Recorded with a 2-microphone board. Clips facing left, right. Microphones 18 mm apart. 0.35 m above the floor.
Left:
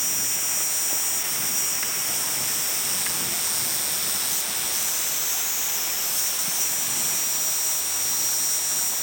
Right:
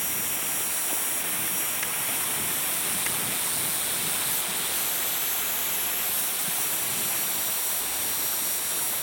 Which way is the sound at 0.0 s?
55° left (ahead or behind).